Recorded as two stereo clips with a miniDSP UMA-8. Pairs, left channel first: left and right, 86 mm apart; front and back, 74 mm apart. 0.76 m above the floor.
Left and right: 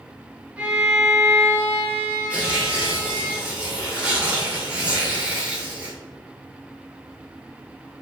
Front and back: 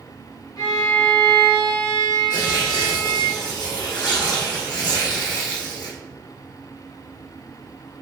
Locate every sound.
0.6 s a violin: 15° right, 2 m
2.3 s tearing paper: 15° right, 2.0 m